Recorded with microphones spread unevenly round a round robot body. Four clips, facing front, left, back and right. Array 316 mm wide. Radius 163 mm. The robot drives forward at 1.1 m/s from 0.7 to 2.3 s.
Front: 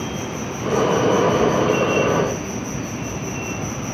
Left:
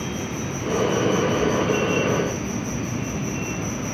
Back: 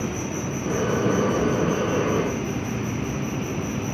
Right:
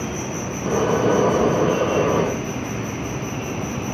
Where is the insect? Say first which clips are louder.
Right 2 dB, front 1 dB; 160° left, 0.9 m; by 3.9 s 175° left, 2.5 m.